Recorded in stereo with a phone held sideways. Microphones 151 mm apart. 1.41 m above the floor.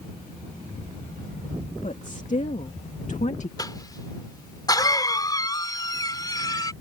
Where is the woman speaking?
55° left (ahead or behind).